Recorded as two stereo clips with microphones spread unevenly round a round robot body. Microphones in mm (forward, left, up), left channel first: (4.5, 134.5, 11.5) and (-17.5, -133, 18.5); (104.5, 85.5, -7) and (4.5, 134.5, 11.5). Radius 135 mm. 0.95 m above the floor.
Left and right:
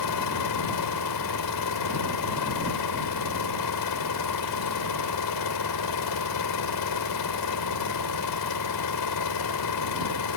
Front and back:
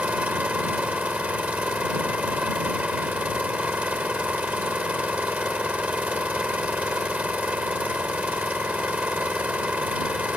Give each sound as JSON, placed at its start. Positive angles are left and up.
{"t": 0.0, "sound": "an engine running", "azimuth_deg": 75}